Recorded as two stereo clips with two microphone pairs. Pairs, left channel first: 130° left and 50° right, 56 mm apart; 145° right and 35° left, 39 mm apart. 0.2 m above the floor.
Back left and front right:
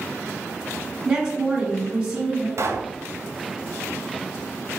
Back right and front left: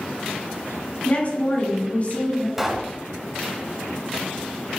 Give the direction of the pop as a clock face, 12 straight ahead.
2 o'clock.